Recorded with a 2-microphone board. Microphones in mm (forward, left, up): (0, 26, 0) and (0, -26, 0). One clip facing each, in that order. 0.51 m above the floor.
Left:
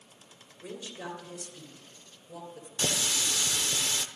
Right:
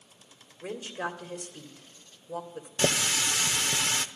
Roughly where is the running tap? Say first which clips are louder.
Right 5 dB; right.